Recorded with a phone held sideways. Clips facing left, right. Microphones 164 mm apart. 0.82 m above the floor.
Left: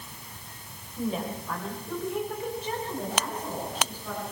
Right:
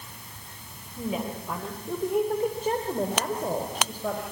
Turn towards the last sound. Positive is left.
turn(degrees=-75)  # may be behind; listen again after turning